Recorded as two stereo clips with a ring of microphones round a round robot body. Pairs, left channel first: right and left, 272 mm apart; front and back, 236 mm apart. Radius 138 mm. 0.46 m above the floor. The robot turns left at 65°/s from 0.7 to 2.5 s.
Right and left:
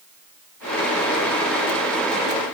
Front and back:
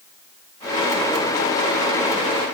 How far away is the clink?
No clink in this recording.